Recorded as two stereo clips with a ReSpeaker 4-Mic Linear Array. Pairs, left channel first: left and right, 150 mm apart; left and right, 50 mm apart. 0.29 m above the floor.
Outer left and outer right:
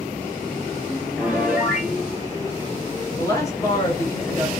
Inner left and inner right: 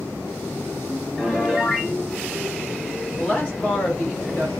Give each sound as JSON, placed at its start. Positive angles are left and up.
{"t": 1.2, "sound": "a piano", "side_deg": -5, "distance_m": 1.0}
{"t": 3.2, "sound": "a woman speaking", "side_deg": 20, "distance_m": 1.6}